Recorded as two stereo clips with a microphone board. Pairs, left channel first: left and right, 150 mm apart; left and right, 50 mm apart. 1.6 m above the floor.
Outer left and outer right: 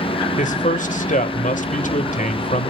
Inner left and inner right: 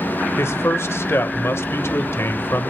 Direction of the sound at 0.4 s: 60° left (ahead or behind).